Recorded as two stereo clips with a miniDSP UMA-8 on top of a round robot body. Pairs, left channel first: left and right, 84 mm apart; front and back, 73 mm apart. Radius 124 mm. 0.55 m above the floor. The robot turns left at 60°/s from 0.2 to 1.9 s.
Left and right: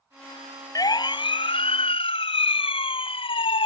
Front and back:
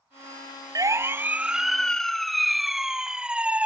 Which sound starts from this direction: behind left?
A siren, at 0.8 s.